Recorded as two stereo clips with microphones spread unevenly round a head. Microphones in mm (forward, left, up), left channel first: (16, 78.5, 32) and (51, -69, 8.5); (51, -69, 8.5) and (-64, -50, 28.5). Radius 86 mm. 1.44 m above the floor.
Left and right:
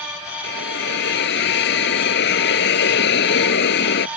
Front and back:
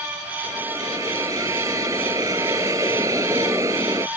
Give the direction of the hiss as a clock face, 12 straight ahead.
9 o'clock.